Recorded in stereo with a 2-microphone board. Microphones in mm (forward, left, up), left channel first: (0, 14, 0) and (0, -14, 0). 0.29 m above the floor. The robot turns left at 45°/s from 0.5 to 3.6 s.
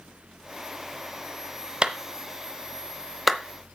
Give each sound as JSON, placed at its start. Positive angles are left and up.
{"t": 1.8, "sound": "a clap", "side_deg": -40, "distance_m": 0.8}